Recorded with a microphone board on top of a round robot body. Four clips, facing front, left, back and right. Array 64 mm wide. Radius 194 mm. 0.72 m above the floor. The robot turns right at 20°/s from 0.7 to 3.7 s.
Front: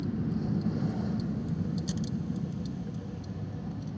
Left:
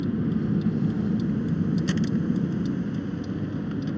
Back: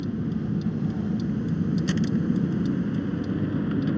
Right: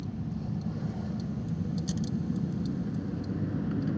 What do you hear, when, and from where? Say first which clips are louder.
0.0 s a vehicle: left 11 dB, back 4 dB; 105° left; by 4.0 s 165° left